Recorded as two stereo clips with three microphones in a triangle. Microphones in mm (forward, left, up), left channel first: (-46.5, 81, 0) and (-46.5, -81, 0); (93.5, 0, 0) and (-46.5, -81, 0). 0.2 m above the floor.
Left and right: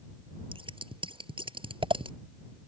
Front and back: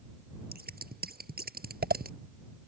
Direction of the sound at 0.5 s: 145° right.